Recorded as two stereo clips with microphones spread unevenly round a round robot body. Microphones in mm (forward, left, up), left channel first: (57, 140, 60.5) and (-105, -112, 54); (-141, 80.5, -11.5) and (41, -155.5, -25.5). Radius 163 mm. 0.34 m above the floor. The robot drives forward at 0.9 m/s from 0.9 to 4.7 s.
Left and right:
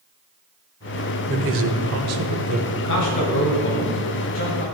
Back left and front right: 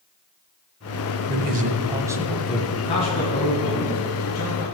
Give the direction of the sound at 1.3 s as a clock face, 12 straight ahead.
3 o'clock.